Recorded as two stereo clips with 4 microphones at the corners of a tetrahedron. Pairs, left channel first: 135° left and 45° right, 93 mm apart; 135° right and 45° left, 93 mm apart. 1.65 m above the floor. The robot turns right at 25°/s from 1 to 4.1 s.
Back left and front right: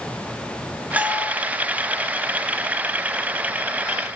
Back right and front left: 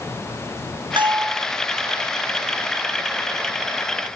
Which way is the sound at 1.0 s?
25° left.